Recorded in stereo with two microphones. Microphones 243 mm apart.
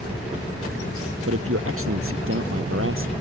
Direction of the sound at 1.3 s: 65° right (ahead or behind).